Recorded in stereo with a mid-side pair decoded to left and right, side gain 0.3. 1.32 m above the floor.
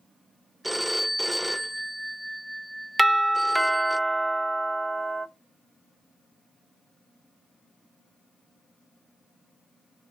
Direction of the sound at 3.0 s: 15° right.